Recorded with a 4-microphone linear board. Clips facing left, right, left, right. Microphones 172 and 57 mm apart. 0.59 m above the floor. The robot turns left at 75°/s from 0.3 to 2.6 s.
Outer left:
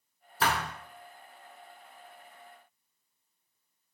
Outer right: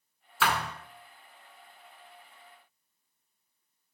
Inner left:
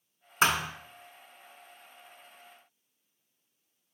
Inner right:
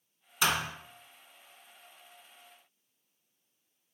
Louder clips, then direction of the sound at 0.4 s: Even, inner left 3 dB; 40° left (ahead or behind).